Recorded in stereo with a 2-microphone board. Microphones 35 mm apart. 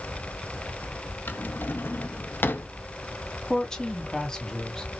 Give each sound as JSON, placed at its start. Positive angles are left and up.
{"t": 1.3, "sound": "a drawer", "side_deg": 75, "distance_m": 0.7}
{"t": 3.5, "sound": "a woman speaking", "side_deg": 20, "distance_m": 1.8}